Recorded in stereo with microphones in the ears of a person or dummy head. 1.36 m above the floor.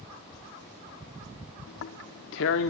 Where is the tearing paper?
60° left (ahead or behind), 1.5 m.